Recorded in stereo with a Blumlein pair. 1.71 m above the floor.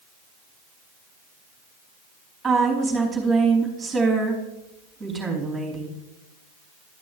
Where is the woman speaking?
10° right, 4 m.